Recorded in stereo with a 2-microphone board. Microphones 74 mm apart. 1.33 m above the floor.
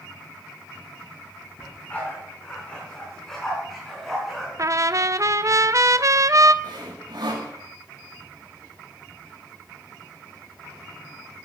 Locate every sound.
1.6 s a dog barking: 20° left (ahead or behind), 7.5 m; by 4.5 s 5° right (ahead or behind), 6.5 m
4.6 s a trumpet: 45° right (ahead or behind), 0.6 m
6.6 s sawing: 80° right, 3.5 m